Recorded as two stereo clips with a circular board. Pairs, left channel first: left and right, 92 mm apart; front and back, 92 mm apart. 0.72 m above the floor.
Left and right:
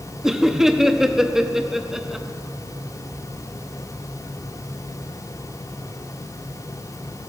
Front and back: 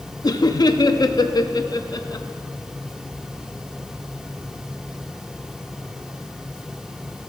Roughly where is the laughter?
Ahead.